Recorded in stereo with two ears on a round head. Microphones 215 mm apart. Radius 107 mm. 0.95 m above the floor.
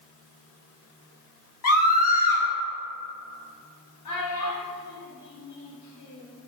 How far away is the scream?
About 1.7 m.